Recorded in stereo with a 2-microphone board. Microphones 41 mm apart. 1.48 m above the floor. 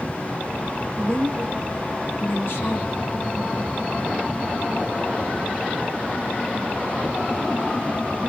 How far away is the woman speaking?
About 1.1 m.